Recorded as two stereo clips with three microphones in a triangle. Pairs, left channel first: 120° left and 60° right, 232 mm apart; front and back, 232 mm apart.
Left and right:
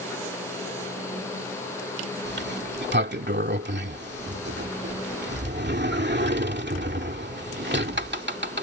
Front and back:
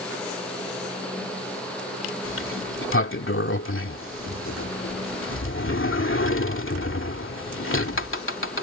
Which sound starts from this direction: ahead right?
A sliding door, at 2.2 s.